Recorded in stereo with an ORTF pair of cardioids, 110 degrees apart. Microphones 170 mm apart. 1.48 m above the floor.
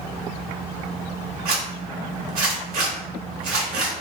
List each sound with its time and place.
1.4 s a zipper: 55° right, 1.2 m